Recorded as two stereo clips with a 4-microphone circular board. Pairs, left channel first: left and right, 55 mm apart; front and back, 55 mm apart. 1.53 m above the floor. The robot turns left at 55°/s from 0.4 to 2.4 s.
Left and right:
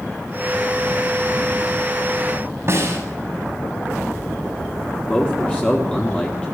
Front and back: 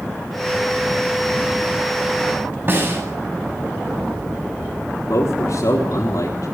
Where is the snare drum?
130° right, 7 m.